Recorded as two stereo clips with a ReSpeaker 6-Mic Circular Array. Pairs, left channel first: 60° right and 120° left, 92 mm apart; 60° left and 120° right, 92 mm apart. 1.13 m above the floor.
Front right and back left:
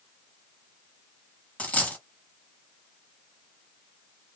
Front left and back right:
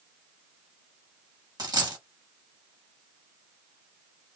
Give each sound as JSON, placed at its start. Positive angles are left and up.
{"t": 1.6, "sound": "a dropped coin", "azimuth_deg": -130, "distance_m": 1.3}